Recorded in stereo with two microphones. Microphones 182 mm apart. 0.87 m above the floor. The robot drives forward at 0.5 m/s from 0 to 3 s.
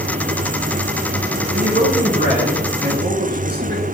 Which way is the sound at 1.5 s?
55° right (ahead or behind).